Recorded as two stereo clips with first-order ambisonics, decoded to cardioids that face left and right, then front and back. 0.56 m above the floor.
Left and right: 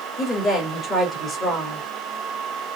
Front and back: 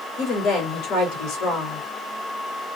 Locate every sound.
0.2 s a woman speaking: 10° left, 1.9 m